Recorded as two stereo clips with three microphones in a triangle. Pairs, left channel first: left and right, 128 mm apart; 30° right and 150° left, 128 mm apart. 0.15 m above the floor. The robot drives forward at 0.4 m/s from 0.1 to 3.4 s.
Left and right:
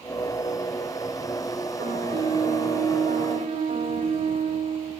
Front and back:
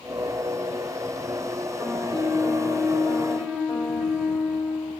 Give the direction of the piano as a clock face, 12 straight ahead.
4 o'clock.